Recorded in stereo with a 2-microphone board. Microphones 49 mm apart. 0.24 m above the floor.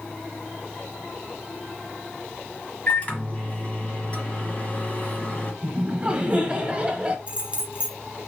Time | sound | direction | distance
2.9 | a microwave | 30° left (ahead or behind) | 1.4 m
5.6 | laughter | 20° right (ahead or behind) | 1.2 m
7.3 | keys jangling | 25° right (ahead or behind) | 1.0 m